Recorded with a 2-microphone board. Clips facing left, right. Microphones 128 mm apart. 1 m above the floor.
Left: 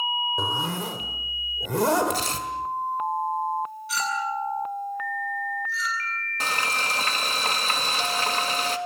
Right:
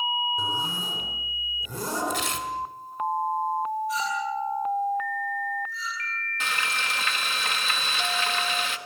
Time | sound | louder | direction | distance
0.4 | a zipper | left 3 dB | 80° left | 3.5 m
2.1 | tearing paper | left 1 dB | 35° left (ahead or behind) | 2.0 m
3.9 | a clink | even | 85° left | 7.5 m
6.4 | frying | left 3 dB | 35° left (ahead or behind) | 1.6 m